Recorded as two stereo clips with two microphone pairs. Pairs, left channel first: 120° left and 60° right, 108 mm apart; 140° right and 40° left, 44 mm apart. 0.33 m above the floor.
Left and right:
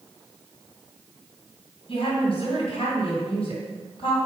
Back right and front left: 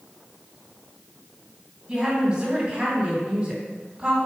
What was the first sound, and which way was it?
A woman speaking, 110° left.